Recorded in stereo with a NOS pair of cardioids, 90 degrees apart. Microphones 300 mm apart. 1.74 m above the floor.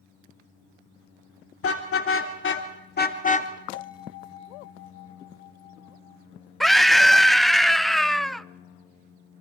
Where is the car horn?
50° left, 3 m; by 3.5 s 25° left, 1.6 m.